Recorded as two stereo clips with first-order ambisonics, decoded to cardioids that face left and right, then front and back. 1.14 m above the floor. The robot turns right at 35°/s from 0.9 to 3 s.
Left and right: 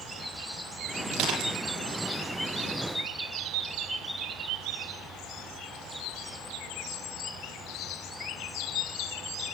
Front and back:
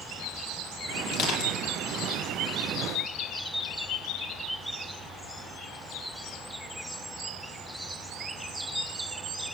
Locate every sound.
1.1 s crushing: 45° right, 9.5 m; by 1.6 s 30° right, 9.5 m